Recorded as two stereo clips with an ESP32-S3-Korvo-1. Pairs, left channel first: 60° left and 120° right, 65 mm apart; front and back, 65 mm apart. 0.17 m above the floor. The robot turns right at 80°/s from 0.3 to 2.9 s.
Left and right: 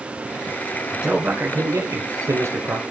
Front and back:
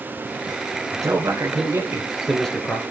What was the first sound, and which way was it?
A man speaking, 155° left.